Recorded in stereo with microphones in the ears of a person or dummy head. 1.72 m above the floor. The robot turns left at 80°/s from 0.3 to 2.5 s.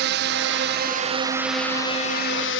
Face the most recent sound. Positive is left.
turn(degrees=100)